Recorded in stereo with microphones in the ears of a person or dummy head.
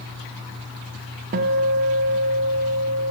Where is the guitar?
50° right (ahead or behind), 0.7 m.